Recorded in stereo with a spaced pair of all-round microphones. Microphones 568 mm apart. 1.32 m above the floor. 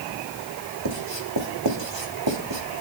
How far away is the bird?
No bird in this recording.